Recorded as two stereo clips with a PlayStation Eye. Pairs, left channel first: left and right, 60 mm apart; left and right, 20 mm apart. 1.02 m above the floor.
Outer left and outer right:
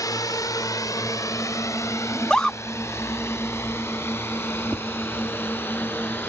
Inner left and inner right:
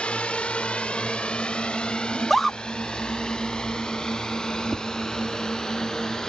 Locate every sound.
0.0 s a drone: 80° left; by 6.3 s 35° left (ahead or behind)
2.1 s a scream: 10° left (ahead or behind)
4.7 s tapping: 25° right (ahead or behind)